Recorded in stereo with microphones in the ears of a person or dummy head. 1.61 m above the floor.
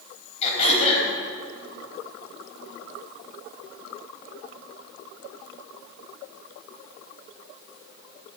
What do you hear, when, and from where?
0.4 s throat clearing: 40° left (ahead or behind), 3.5 m